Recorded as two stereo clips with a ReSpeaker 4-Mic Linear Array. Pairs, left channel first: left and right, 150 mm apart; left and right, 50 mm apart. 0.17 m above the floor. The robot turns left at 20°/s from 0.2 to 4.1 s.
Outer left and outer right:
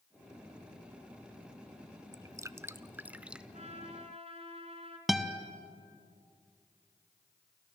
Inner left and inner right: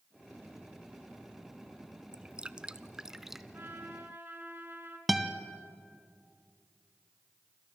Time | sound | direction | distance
2.1 | dripping | 25° right (ahead or behind) | 0.5 m
3.5 | a trumpet | 50° right (ahead or behind) | 2.5 m
5.1 | a guitar | centre (ahead or behind) | 1.3 m